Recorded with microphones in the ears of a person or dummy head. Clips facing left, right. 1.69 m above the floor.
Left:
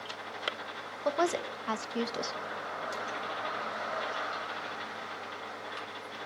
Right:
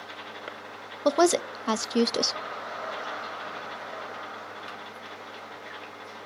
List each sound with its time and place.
1.1 s a woman speaking: 70° right (ahead or behind), 0.5 m